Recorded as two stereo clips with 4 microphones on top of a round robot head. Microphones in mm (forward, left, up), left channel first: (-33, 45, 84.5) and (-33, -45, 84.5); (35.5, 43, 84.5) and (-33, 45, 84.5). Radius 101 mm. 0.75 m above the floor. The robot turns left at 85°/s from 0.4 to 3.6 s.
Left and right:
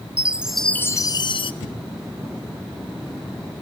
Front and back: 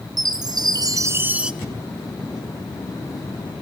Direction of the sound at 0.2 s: 170° right.